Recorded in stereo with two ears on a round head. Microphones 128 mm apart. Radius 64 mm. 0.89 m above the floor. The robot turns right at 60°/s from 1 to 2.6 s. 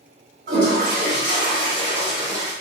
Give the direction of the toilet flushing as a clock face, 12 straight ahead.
4 o'clock.